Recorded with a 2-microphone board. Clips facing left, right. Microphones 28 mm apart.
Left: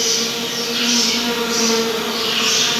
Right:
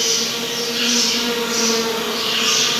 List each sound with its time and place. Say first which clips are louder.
0.0 s an insect: left 1 dB; 60° left (ahead or behind), 1.4 m